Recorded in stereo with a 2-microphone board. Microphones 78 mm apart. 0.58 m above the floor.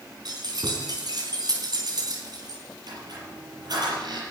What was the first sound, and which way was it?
Keys jangling, 60° right (ahead or behind).